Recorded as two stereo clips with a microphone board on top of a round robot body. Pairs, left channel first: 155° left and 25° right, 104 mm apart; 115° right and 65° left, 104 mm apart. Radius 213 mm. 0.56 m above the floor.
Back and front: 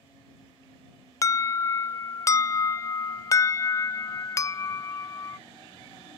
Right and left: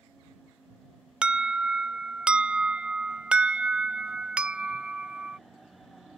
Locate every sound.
1.2 s an alarm: 140° left